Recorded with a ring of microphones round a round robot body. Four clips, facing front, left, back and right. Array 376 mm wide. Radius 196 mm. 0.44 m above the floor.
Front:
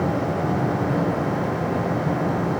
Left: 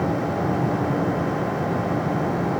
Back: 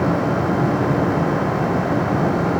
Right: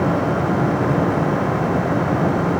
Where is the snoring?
I don't hear snoring.